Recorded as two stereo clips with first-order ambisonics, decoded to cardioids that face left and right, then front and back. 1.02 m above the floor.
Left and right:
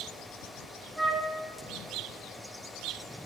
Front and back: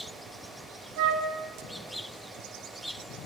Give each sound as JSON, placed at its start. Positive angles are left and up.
{"t": 1.0, "sound": "a flute", "azimuth_deg": 180, "distance_m": 1.6}